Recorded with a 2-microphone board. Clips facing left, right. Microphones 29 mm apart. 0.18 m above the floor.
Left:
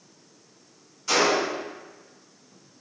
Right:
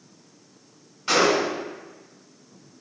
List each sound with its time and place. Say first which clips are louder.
1.1 s a gunshot: right 2 dB; 40° right (ahead or behind), 1.6 m